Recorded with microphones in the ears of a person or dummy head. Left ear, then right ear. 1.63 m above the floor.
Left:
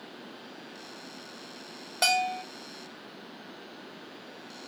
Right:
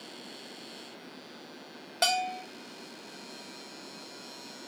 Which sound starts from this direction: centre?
A bell, at 2.0 s.